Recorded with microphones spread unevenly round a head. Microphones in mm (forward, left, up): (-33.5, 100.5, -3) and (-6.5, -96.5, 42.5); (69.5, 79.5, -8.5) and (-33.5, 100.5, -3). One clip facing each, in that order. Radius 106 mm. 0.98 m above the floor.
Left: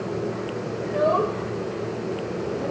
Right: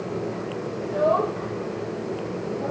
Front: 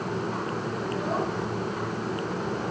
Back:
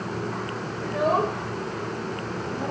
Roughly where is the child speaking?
Behind.